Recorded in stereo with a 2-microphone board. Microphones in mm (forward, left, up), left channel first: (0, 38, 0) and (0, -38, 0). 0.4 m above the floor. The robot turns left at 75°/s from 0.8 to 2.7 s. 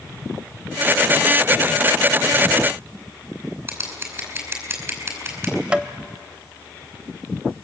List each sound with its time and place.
3.7 s scissors: 35° right (ahead or behind), 5 m
5.7 s tapping: 15° right (ahead or behind), 0.8 m